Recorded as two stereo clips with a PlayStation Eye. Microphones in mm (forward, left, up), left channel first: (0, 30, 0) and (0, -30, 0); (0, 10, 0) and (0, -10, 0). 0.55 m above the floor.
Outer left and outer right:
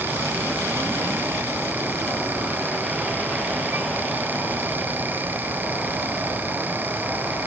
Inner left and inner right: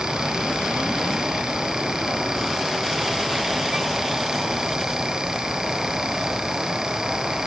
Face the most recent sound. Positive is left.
No sound to turn to.